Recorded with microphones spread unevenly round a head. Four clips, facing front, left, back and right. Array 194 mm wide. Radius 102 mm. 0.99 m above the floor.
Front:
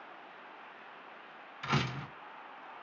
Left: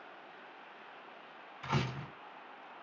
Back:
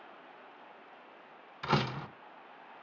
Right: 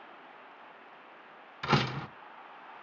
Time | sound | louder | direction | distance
1.6 | a door slam | right 7 dB, back 3 dB | 105° right | 0.6 m